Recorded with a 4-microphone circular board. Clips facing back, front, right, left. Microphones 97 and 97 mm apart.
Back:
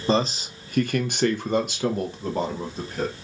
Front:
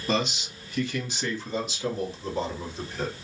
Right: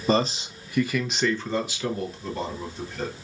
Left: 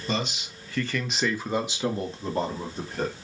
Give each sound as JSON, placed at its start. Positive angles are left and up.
{"t": 0.1, "sound": "a man speaking", "azimuth_deg": -125, "distance_m": 0.8}